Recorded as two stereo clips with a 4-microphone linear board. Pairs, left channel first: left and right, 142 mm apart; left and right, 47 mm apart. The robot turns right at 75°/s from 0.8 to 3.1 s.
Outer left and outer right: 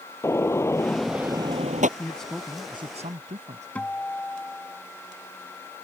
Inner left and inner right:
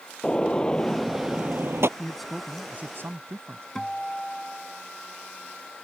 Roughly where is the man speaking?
Behind.